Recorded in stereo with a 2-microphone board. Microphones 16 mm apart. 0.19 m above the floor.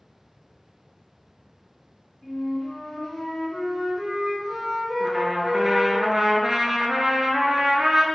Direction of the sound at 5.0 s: 35° right (ahead or behind).